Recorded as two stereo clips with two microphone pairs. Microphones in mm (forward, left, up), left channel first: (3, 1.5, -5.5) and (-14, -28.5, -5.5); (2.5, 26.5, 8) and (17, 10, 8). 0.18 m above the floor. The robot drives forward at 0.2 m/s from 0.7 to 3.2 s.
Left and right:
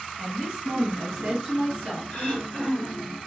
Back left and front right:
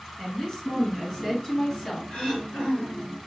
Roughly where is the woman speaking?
Behind.